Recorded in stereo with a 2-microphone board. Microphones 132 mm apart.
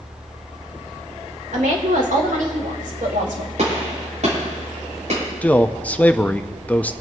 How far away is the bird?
No bird in this recording.